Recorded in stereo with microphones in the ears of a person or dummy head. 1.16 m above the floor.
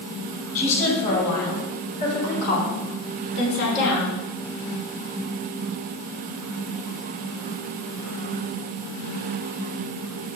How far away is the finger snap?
No finger snap in this recording.